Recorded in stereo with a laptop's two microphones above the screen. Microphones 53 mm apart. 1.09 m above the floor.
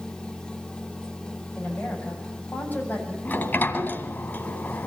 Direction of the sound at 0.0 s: 15° left (ahead or behind).